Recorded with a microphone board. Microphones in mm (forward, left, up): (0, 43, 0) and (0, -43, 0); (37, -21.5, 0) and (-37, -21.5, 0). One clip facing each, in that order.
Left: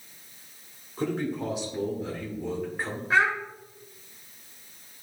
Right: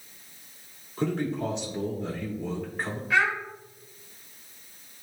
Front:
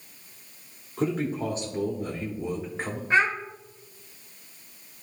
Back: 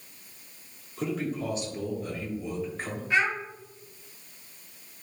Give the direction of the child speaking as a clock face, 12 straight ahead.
11 o'clock.